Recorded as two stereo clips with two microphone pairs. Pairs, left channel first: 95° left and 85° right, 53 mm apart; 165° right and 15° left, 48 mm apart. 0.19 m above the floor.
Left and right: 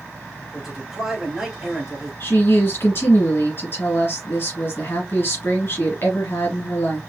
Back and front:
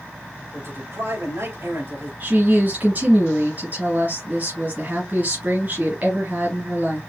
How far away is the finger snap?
I don't hear a finger snap.